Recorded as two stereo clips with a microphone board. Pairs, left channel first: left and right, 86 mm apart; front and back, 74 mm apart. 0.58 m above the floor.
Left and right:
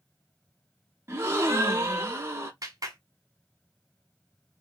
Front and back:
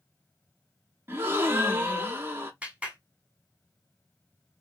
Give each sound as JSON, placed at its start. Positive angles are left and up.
{"t": 1.1, "sound": "a gasp", "azimuth_deg": -135, "distance_m": 0.7}
{"t": 2.6, "sound": "a clap", "azimuth_deg": -110, "distance_m": 1.2}